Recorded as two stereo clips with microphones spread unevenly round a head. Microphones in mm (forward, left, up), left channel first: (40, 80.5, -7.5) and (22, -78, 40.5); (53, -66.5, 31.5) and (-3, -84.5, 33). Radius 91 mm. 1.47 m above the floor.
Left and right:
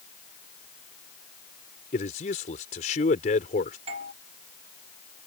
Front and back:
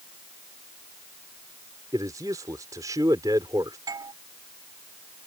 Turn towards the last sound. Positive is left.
turn(degrees=-155)